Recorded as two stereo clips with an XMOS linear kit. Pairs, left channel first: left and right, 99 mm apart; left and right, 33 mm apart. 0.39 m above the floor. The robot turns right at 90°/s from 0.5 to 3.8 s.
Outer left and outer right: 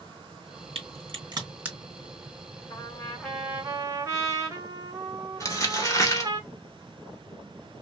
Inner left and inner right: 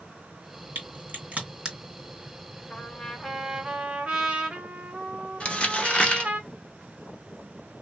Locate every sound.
0.8 s a crack: 70° right (ahead or behind), 2.5 m; by 1.8 s 10° right (ahead or behind), 2.5 m
2.7 s a trumpet: 125° left, 1.3 m; by 6.4 s 140° right, 1.3 m
5.4 s crumpling: 35° left (ahead or behind), 1.1 m